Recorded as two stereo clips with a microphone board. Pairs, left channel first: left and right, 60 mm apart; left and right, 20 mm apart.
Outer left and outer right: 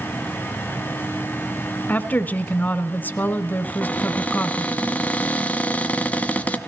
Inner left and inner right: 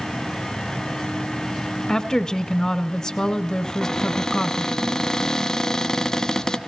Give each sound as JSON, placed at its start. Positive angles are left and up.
{"t": 1.9, "sound": "a woman speaking", "side_deg": 30, "distance_m": 1.2}
{"t": 3.6, "sound": "a cupboard door", "side_deg": 25, "distance_m": 1.0}